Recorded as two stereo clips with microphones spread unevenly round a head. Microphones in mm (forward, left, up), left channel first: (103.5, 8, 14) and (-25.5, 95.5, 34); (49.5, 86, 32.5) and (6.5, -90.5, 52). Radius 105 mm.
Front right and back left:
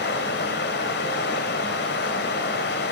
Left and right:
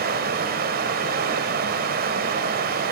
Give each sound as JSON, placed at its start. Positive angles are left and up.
{"t": 0.0, "sound": "running water", "azimuth_deg": -75, "distance_m": 1.6}